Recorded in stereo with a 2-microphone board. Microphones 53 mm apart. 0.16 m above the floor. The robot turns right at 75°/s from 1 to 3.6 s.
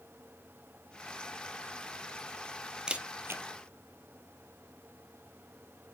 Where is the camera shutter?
15° right (ahead or behind), 0.9 m; by 3.4 s 55° right (ahead or behind), 0.9 m.